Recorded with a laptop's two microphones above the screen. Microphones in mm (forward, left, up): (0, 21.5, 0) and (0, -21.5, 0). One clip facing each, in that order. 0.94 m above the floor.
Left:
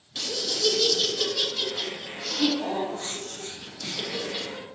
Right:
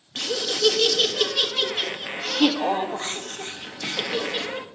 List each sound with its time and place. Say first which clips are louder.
0.1 s laughter: right 5 dB; 45° right (ahead or behind), 0.6 m